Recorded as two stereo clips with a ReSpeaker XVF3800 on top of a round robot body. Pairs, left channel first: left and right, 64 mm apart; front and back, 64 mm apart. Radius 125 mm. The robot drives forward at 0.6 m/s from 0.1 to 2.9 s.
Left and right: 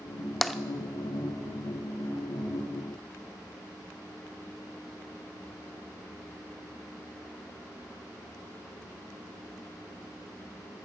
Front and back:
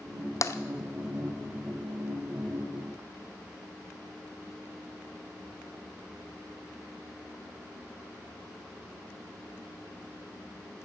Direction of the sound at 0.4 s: Straight ahead.